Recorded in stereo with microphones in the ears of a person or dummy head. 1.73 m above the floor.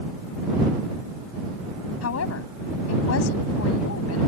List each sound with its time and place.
2.0 s a woman speaking: 85° left